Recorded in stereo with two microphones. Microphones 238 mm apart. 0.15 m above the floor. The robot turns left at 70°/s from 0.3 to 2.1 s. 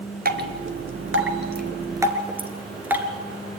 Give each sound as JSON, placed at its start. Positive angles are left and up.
{"t": 0.2, "sound": "dripping", "side_deg": -35, "distance_m": 2.0}